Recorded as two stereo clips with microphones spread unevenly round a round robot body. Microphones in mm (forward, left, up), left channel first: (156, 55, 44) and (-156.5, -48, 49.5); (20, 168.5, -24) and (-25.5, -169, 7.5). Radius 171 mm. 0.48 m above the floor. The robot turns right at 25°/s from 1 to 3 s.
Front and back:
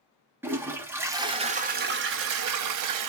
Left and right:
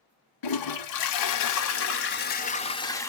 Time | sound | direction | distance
0.4 | a toilet flushing | 115° left | 0.9 m